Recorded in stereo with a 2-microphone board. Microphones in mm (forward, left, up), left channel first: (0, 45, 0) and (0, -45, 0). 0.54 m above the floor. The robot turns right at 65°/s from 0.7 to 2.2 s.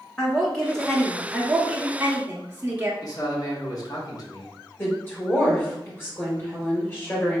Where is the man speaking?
45° left (ahead or behind), 1.0 m.